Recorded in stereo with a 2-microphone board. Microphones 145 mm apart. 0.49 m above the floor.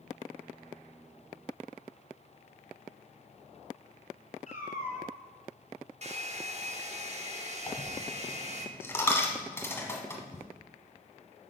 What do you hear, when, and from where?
4.5 s a cat meowing: 50° left (ahead or behind), 1.6 m
6.0 s a hair dryer: 45° right (ahead or behind), 0.8 m
7.7 s a dropped coin: 15° left (ahead or behind), 1.2 m